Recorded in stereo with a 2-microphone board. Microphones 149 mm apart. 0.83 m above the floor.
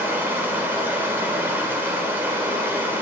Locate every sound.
0.0 s running water: 15° right (ahead or behind), 1.9 m